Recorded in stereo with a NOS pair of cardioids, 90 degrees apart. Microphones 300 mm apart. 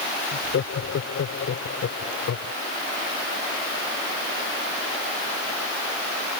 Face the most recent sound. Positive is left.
turn(degrees=55)